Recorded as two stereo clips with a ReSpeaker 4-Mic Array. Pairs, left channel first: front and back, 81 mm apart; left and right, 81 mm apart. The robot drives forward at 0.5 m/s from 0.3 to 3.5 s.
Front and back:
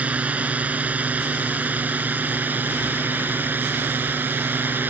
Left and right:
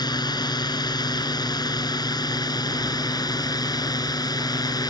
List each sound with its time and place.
0.0 s a drone: 110° left; by 4.9 s 115° left